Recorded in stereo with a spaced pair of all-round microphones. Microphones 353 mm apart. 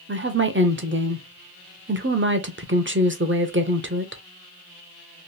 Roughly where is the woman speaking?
Right.